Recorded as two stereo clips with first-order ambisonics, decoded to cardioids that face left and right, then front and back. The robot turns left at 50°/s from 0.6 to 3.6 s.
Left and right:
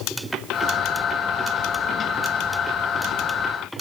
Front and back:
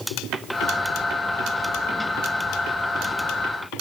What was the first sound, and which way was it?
Only background noise.